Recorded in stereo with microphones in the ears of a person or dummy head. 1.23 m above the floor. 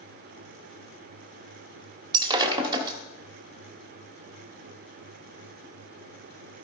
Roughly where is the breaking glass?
Right.